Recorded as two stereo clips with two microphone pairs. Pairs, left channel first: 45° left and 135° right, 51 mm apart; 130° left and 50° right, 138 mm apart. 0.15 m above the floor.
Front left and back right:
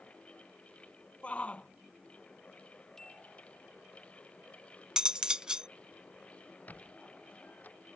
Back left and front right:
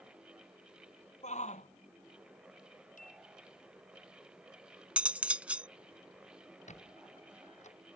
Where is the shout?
110° left.